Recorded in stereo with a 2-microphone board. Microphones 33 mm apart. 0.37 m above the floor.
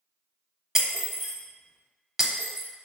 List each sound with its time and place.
0.8 s breaking glass: 5° right (ahead or behind), 0.8 m